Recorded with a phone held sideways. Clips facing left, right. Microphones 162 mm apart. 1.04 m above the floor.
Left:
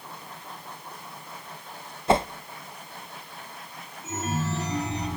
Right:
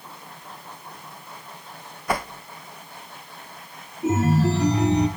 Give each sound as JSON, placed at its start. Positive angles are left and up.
{"t": 2.1, "sound": "a whoosh", "side_deg": 25, "distance_m": 0.5}
{"t": 4.0, "sound": "a chime", "side_deg": -65, "distance_m": 4.5}